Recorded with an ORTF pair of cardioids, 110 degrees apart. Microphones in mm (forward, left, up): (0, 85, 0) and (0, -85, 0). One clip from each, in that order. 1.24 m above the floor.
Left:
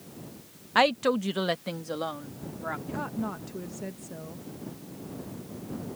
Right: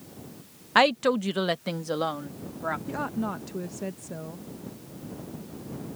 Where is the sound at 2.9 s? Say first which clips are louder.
Right 3 dB; 20° right.